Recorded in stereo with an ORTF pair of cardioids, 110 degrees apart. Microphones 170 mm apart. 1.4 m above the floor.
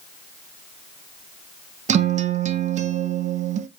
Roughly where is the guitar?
Ahead right.